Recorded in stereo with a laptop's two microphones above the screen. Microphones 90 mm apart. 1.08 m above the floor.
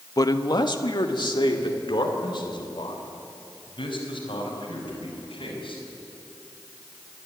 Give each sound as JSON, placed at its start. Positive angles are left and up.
{"t": 0.2, "sound": "a man speaking", "side_deg": 40, "distance_m": 0.8}